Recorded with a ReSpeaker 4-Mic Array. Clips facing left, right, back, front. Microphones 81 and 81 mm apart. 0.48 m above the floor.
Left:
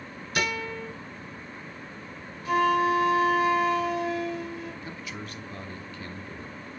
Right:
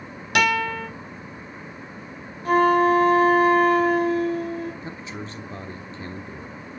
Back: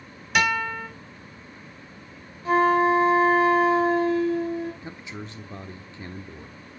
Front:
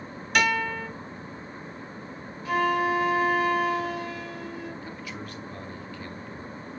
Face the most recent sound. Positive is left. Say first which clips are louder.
# right 4 dB, even
turn(degrees=-130)